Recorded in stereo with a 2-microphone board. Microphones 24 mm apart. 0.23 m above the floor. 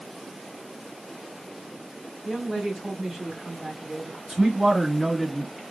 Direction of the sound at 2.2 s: 30° right (ahead or behind).